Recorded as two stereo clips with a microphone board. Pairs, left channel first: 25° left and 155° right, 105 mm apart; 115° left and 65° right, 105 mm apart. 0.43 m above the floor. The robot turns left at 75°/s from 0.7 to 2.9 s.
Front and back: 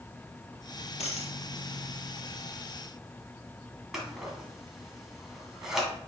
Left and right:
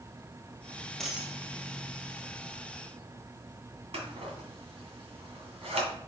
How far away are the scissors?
About 1.8 m.